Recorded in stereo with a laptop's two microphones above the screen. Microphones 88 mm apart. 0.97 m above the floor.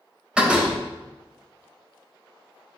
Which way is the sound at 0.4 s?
10° right (ahead or behind).